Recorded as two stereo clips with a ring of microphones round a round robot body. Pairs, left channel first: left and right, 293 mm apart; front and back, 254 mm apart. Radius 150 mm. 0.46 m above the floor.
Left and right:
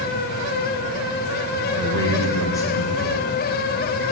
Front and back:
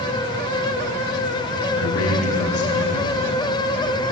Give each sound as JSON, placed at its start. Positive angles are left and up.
{"t": 1.8, "sound": "a man speaking", "azimuth_deg": 10, "distance_m": 2.5}